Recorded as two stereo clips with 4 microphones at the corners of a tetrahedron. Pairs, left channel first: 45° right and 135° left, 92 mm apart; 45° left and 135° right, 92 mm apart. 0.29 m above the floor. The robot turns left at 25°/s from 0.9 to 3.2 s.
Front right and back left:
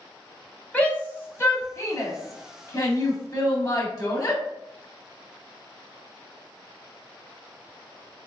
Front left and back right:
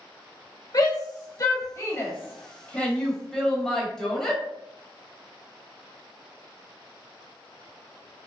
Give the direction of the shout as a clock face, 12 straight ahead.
11 o'clock.